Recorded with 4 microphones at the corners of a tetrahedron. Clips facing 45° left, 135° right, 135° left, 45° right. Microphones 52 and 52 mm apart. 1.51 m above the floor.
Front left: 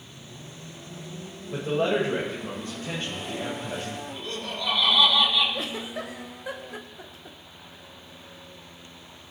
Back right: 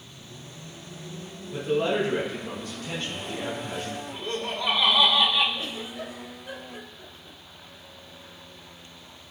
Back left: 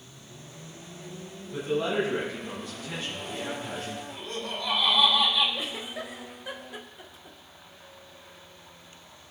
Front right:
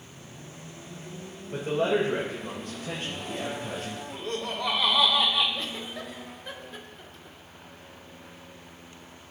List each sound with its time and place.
1.5 s a man speaking: 5° right, 7 m; by 4.0 s 25° right, 9 m
4.1 s laughter: 65° right, 4.5 m
5.5 s a giggle: 55° left, 1.3 m